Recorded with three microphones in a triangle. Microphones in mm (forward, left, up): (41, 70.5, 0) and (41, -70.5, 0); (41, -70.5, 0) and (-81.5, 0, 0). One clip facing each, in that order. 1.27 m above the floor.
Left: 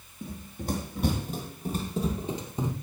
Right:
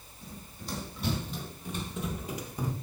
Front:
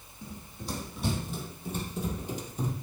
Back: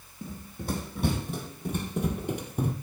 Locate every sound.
0.2 s running footsteps: 115° left, 4 m; by 2.7 s 155° left, 2.5 m